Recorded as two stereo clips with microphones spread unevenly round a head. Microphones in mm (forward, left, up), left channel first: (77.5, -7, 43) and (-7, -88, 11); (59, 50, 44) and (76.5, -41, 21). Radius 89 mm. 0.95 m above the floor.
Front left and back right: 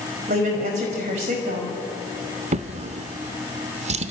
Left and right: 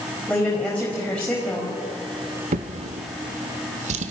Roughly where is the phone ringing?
No phone ringing in this recording.